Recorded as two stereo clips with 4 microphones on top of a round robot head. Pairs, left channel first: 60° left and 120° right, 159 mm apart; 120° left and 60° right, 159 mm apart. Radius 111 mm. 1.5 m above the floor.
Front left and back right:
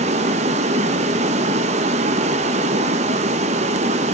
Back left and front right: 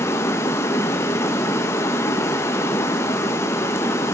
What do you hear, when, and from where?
0.0 s running water: 165° right, 0.9 m